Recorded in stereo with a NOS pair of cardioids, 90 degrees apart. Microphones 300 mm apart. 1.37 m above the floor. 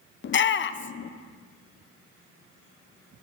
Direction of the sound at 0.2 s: 40° left.